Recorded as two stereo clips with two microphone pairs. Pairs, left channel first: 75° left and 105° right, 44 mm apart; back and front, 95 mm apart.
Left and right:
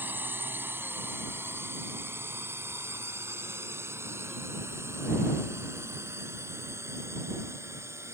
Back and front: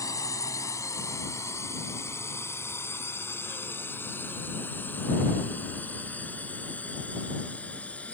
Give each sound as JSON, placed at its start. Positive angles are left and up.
{"t": 0.0, "sound": "a drone", "azimuth_deg": -135}